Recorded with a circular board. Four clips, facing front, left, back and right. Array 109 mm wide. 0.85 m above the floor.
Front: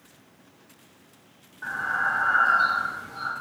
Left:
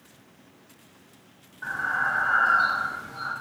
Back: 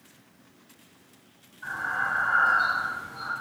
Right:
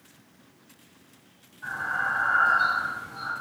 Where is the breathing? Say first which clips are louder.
Left 2 dB, front 3 dB; 45° left, 0.6 m.